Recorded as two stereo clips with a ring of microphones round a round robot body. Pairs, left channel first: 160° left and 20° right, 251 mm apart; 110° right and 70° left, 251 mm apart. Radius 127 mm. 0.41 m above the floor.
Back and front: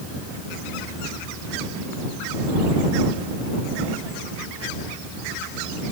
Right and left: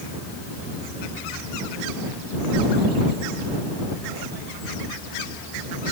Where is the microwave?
No microwave in this recording.